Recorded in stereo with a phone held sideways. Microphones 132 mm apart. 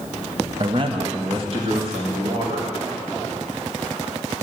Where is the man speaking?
40° right (ahead or behind), 0.8 m; by 2.7 s 45° right (ahead or behind), 4 m.